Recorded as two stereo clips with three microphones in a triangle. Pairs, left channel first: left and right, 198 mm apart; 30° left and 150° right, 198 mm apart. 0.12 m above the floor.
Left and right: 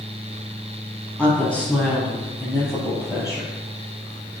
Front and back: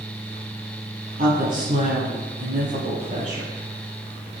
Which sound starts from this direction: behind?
A woman speaking, at 1.2 s.